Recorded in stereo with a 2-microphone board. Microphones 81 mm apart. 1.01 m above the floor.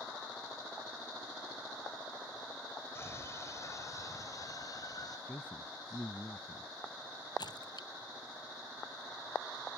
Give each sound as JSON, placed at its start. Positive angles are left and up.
{"t": 3.0, "sound": "a scream", "side_deg": 35}
{"t": 5.3, "sound": "a man speaking", "side_deg": 20}
{"t": 7.4, "sound": "a splash", "side_deg": 60}